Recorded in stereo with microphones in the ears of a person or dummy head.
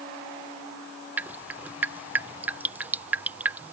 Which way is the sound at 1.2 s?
10° right (ahead or behind).